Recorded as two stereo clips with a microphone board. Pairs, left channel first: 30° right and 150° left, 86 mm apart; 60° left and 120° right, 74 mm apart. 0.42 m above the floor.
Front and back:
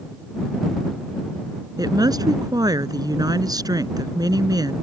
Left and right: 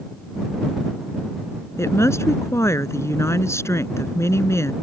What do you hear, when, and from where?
1.8 s a woman speaking: 110° left